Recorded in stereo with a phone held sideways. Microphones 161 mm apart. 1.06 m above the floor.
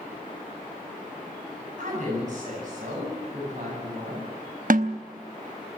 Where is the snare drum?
65° right (ahead or behind), 0.8 m.